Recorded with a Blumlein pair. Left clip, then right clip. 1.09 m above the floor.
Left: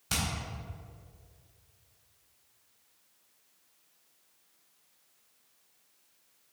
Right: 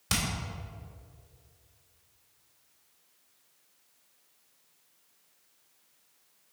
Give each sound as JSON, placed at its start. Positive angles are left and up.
{"t": 0.1, "sound": "hammering", "azimuth_deg": -60, "distance_m": 2.5}